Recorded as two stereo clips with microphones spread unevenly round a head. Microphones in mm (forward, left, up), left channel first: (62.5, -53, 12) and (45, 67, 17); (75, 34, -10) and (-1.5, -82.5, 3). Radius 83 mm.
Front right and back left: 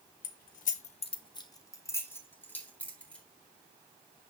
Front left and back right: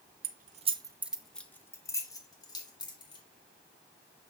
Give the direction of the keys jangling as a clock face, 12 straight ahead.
4 o'clock.